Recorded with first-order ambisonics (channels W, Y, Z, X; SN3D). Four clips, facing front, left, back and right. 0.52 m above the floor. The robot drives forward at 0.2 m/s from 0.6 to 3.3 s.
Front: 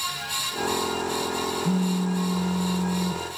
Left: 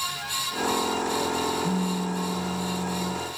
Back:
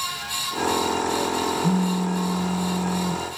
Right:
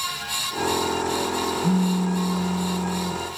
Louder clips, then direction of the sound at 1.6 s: Right 5 dB, back 2 dB; 140° right.